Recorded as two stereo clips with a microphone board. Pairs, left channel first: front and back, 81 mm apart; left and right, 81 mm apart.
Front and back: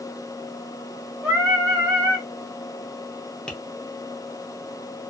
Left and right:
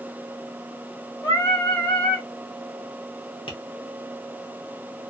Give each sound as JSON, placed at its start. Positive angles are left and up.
{"t": 1.2, "sound": "singing", "azimuth_deg": 115, "distance_m": 1.3}
{"t": 3.5, "sound": "tapping", "azimuth_deg": 80, "distance_m": 0.7}